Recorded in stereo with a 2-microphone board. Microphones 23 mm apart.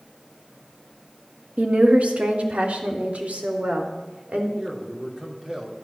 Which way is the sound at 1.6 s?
80° right.